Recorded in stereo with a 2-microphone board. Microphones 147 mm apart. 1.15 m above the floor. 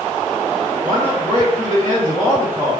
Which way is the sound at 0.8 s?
35° left (ahead or behind).